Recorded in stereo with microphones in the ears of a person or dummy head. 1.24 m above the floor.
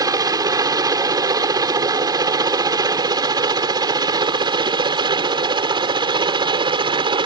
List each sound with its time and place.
0.0 s a helicopter: 20° right (ahead or behind); by 7.3 s 25° right (ahead or behind)